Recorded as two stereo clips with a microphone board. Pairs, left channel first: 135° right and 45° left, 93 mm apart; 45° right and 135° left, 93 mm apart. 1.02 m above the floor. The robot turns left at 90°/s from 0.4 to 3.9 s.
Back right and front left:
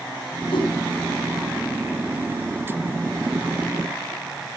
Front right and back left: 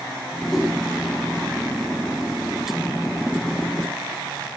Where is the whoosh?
130° right, 5 m; by 0.7 s 150° right, 5 m.